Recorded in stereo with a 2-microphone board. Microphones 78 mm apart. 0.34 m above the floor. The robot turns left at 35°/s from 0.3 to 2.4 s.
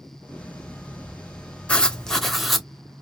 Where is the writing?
15° left (ahead or behind), 0.6 m; by 2.7 s centre (ahead or behind), 0.6 m.